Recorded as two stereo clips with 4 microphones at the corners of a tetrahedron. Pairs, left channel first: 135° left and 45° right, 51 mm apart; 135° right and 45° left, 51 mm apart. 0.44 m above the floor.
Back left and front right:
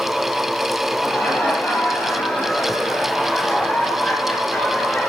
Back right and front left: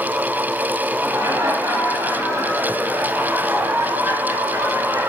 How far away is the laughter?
About 7.5 m.